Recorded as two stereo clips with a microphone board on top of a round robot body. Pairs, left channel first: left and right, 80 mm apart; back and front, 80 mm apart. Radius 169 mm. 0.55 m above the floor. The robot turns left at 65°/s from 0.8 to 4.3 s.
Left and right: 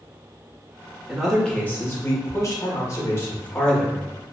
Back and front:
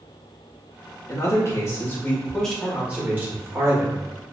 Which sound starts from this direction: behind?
A man speaking, at 1.1 s.